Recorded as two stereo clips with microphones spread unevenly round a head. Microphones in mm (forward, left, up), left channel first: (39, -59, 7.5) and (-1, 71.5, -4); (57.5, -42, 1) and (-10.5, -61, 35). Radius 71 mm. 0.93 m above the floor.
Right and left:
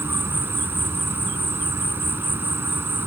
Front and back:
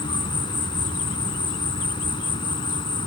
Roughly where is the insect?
Ahead left.